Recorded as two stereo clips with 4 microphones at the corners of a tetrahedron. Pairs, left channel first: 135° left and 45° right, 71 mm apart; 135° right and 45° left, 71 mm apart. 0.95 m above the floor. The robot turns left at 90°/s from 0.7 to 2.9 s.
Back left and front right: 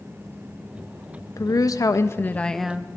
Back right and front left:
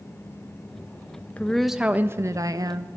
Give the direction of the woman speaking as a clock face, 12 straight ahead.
7 o'clock.